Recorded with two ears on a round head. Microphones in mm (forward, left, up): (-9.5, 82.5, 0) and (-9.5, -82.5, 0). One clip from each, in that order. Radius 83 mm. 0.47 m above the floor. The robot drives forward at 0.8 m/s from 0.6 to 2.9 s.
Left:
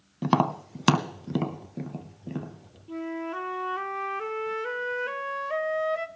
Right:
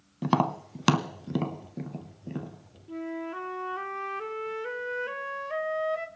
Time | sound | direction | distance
0.2 | tapping | 5° left (ahead or behind) | 0.5 m
2.9 | a flute | 10° left (ahead or behind) | 0.6 m